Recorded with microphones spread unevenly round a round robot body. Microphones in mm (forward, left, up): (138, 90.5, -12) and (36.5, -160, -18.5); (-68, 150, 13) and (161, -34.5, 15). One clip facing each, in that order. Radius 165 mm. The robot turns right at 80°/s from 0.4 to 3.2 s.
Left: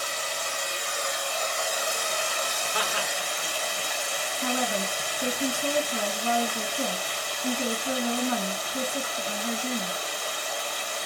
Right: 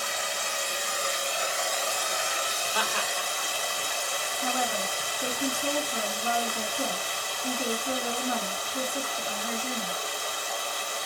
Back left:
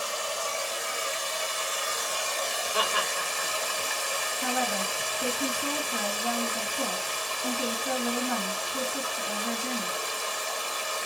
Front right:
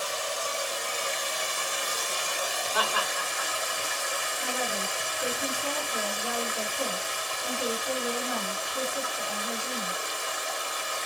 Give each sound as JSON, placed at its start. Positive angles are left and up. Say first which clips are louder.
{"t": 0.0, "sound": "running water", "louder": "even, even", "azimuth_deg": -120, "distance_m": 1.2}
{"t": 2.7, "sound": "laughter", "louder": "left 1 dB, back left 1 dB", "azimuth_deg": 120, "distance_m": 1.2}
{"t": 4.4, "sound": "a woman speaking", "louder": "left 3 dB, back left 3 dB", "azimuth_deg": 130, "distance_m": 2.5}